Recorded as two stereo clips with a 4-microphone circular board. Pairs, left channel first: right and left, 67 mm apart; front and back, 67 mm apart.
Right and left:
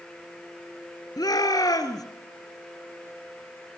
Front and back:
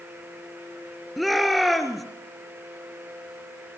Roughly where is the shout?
Right.